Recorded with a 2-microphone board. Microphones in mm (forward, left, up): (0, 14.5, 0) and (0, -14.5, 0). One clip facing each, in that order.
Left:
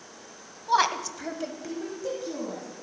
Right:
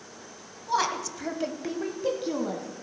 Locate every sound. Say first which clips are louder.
0.7 s a woman speaking: left 3 dB; 30° left (ahead or behind), 1.2 m; by 2.7 s 55° right (ahead or behind), 1.8 m